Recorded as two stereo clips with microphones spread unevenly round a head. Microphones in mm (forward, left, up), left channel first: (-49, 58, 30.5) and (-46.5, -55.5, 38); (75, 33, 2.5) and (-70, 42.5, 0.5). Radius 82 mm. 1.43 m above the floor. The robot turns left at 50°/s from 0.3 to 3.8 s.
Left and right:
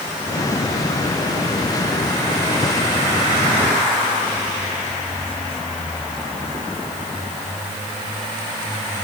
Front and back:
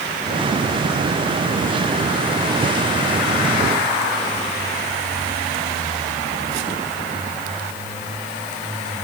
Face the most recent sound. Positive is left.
No sound to turn to.